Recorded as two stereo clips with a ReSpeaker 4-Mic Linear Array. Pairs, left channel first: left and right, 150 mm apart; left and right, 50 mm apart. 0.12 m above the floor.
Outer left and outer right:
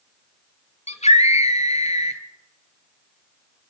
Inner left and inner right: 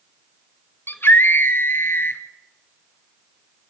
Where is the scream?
50° left (ahead or behind), 2.5 m.